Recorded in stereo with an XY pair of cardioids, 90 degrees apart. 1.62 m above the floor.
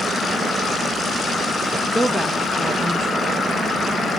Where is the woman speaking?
5° left, 1.6 m.